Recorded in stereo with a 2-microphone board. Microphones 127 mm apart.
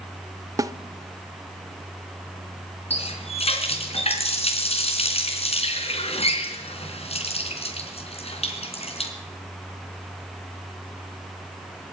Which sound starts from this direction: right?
A snare drum, at 0.6 s.